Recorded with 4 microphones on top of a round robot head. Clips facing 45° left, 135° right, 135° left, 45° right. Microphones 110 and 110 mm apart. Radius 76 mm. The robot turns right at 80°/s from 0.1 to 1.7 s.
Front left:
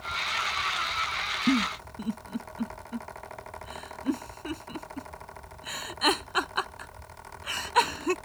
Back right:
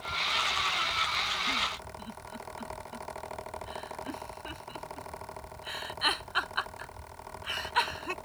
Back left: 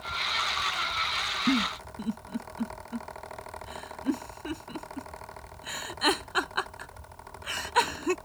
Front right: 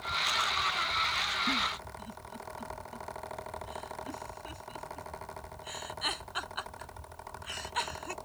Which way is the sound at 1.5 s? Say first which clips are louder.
Front left 9 dB, back left 7 dB; 80° left.